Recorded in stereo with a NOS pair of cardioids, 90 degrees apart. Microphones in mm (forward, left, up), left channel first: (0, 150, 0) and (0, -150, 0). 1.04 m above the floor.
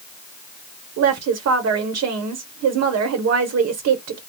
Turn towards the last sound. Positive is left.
turn(degrees=-60)